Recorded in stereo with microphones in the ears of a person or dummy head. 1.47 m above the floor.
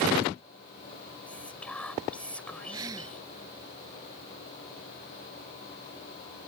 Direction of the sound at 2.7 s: 20° right (ahead or behind).